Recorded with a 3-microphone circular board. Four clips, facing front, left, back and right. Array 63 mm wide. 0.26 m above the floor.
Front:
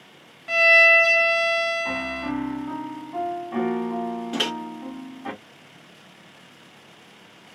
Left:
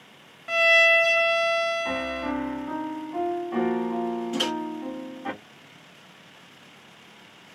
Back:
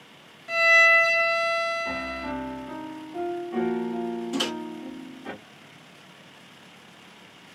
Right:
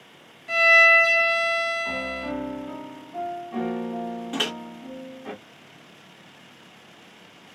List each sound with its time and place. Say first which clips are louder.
0.5 s a violin: right 3 dB, front 2 dB; 50° left, 0.9 m
1.9 s a piano: left 1 dB, front 3 dB; 40° left, 0.8 m
4.3 s a microwave: right 2 dB, front 2 dB; 30° right, 0.8 m